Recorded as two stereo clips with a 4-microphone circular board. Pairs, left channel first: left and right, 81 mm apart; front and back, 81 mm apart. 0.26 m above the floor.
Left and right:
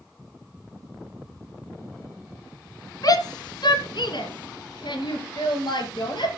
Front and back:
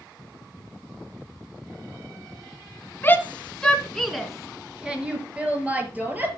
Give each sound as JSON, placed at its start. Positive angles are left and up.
{"t": 3.0, "sound": "a shout", "azimuth_deg": 60, "distance_m": 2.0}